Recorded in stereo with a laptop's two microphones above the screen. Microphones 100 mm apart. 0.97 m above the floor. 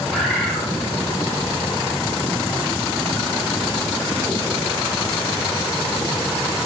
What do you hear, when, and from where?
0.1 s a bird: centre (ahead or behind), 1.5 m